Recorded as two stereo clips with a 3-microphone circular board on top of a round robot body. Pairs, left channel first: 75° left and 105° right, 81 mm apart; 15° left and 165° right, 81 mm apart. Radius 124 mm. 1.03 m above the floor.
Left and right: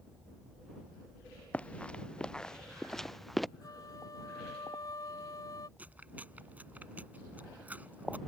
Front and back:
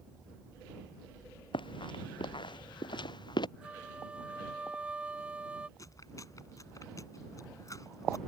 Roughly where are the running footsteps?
Ahead.